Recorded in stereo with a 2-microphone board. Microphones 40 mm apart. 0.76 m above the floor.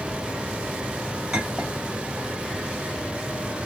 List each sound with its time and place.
1.3 s a clink: 15° right (ahead or behind), 2.5 m